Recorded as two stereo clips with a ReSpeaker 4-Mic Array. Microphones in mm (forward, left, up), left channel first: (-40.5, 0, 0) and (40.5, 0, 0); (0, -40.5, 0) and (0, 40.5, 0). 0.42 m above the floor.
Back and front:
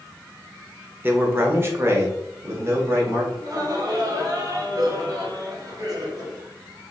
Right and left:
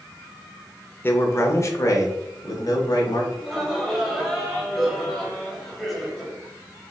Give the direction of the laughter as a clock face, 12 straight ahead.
12 o'clock.